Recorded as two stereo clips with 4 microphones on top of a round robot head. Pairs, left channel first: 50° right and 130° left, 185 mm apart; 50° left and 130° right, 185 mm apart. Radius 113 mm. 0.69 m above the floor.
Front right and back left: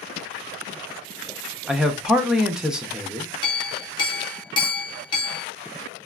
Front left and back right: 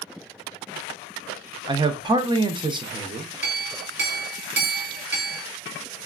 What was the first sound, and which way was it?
A man speaking, 150° right.